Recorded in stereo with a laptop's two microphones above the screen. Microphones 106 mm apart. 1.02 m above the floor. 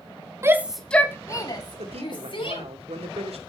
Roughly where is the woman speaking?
Right.